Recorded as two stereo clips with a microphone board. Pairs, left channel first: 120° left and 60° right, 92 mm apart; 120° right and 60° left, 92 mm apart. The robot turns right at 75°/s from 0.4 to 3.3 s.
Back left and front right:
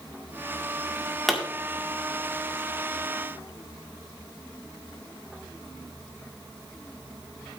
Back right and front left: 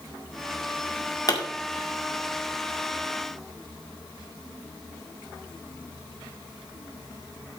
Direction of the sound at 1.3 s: 150° right.